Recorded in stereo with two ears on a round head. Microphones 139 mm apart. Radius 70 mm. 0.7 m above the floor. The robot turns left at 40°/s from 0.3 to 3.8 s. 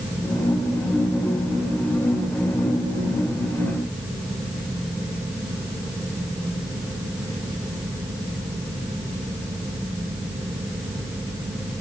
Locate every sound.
Only background noise.